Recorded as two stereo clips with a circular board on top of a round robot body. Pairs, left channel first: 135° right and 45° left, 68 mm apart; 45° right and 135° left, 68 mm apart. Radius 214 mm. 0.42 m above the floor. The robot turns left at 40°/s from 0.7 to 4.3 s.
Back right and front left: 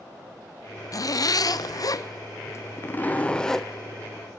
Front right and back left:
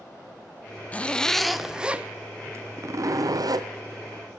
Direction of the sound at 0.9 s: 110° right.